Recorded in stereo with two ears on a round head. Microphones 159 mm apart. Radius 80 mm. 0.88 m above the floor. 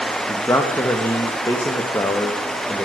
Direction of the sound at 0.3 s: 15° left (ahead or behind).